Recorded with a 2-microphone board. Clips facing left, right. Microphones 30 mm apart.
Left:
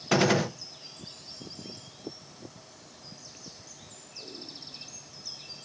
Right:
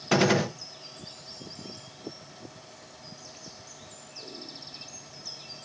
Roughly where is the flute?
I don't hear a flute.